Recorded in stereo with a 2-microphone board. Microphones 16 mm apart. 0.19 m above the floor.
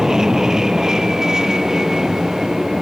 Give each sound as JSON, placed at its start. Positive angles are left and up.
{"t": 0.0, "sound": "an aircraft", "side_deg": -40}